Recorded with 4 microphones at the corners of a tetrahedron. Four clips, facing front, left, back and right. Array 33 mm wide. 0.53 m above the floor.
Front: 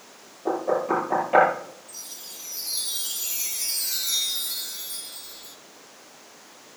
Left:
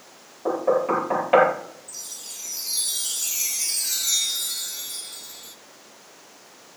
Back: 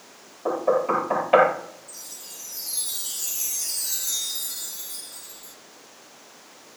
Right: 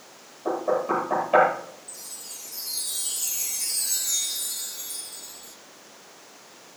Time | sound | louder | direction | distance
0.5 | knocking | left 3 dB, back 2 dB | 115° left | 9 m
1.9 | a chime | left 4 dB, front 1 dB | 65° left | 1.8 m